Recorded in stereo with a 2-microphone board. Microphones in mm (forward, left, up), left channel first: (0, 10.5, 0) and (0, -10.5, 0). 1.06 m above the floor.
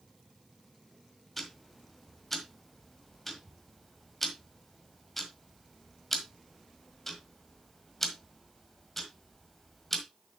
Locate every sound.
1.4 s ticking: 10° left (ahead or behind), 1.6 m